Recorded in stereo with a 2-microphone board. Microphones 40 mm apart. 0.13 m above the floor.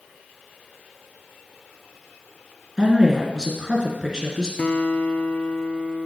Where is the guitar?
40° left (ahead or behind), 0.8 m.